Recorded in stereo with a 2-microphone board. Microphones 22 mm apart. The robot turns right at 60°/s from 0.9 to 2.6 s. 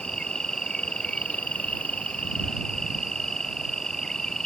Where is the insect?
45° left; by 4.5 s 145° left.